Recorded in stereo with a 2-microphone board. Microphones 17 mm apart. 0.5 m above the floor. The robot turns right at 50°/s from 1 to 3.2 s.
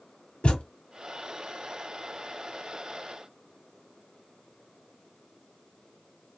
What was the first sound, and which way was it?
A thud, 75° left (ahead or behind).